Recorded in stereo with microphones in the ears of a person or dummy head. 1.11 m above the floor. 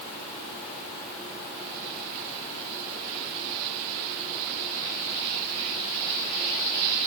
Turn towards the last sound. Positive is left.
No sound to turn to.